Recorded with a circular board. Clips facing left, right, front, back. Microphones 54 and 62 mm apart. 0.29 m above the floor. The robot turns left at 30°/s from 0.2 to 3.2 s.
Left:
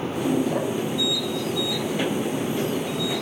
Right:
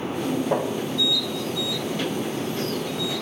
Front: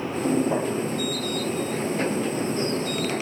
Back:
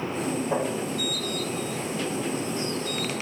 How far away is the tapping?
About 6 m.